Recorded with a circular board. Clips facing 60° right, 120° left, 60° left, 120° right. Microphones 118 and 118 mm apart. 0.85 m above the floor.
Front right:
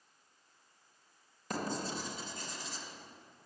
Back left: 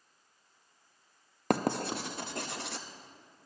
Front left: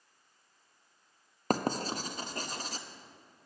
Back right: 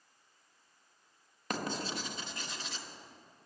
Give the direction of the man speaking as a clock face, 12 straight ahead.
I don't hear a man speaking.